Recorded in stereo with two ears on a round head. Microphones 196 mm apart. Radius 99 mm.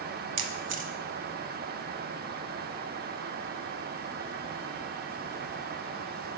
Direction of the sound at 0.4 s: 55° right (ahead or behind).